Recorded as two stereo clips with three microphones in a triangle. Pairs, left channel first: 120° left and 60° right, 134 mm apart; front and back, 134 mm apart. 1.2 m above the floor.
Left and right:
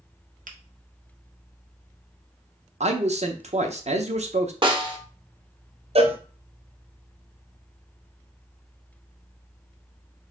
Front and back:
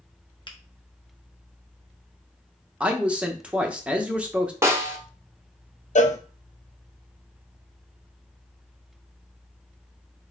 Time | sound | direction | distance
0.5 | a finger snap | 50° right | 0.7 m
2.8 | a man speaking | 100° right | 0.8 m
4.6 | a snare drum | 110° right | 0.9 m
6.0 | a cowbell | 20° right | 0.6 m